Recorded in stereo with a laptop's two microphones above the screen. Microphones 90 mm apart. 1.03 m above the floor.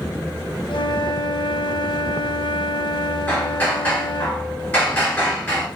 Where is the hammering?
25° left (ahead or behind), 2 m.